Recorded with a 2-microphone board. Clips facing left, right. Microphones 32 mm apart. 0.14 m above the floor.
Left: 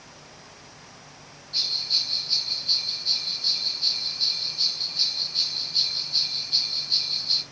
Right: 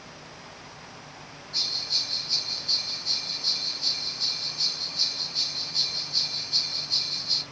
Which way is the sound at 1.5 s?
35° left (ahead or behind).